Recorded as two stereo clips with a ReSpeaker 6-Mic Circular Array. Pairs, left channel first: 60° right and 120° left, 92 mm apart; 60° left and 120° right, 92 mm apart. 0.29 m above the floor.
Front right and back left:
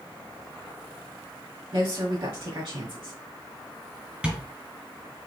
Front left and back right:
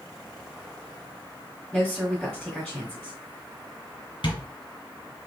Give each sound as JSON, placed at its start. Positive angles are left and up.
{"t": 1.7, "sound": "a woman speaking", "azimuth_deg": 150, "distance_m": 1.8}
{"t": 4.2, "sound": "tapping", "azimuth_deg": 40, "distance_m": 3.0}